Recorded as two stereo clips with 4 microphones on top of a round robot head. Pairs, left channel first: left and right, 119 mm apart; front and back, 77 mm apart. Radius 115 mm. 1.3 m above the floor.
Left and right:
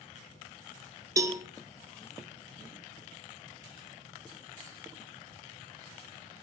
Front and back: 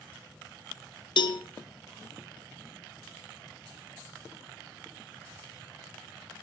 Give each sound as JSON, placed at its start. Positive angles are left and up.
{"t": 1.2, "sound": "a cowbell", "azimuth_deg": -25, "distance_m": 1.1}